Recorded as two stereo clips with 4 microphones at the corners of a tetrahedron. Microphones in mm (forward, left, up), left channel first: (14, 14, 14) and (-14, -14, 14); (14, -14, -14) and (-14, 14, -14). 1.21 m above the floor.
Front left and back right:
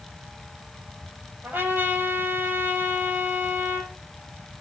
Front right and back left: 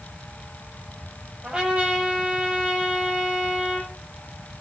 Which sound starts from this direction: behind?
A trumpet, at 1.4 s.